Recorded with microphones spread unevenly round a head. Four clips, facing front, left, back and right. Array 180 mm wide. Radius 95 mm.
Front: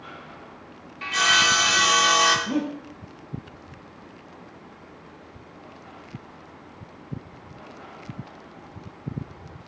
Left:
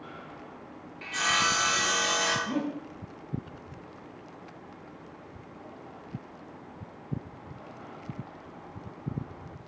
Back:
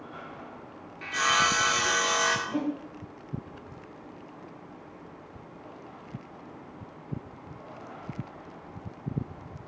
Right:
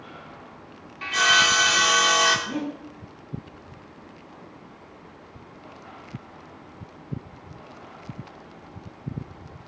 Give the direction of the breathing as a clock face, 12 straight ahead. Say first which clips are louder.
Right 1 dB, front 4 dB; 12 o'clock.